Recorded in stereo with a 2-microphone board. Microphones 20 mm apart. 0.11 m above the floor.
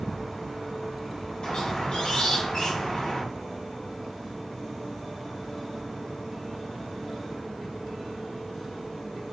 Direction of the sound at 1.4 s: 60° left (ahead or behind).